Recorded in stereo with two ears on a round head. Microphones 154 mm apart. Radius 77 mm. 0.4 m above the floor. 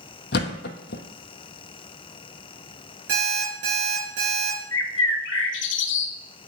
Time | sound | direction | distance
0.3 | a thud | 65° left (ahead or behind) | 0.9 m
3.1 | an alarm clock | 80° right | 3.5 m
4.7 | a bird | 80° left | 0.7 m